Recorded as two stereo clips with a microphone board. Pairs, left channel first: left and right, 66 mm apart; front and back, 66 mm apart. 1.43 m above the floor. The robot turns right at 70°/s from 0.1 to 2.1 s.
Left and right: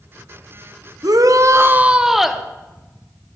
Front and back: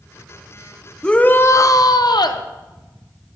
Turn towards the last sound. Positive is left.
turn(degrees=-5)